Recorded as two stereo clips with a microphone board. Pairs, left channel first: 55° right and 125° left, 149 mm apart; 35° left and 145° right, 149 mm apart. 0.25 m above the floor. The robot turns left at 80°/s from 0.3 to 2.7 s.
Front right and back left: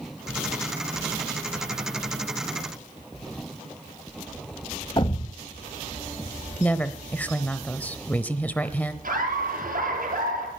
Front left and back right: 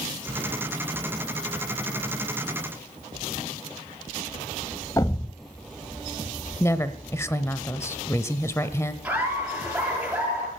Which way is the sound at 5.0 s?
20° right.